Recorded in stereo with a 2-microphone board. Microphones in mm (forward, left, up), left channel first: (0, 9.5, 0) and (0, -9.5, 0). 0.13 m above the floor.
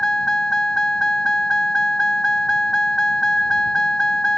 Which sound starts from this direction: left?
A vehicle, at 0.0 s.